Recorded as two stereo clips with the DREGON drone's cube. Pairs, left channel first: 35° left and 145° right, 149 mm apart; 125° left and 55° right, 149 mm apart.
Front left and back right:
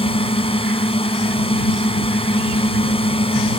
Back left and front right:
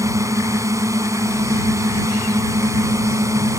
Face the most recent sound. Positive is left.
turn(degrees=5)